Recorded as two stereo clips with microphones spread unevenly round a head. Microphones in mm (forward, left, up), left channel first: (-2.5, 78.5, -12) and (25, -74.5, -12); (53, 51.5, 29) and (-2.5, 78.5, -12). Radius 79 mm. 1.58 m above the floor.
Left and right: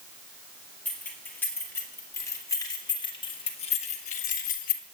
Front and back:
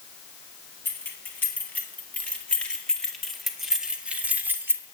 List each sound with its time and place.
0.8 s keys jangling: 20° left, 3 m; by 4.8 s 85° left, 1.5 m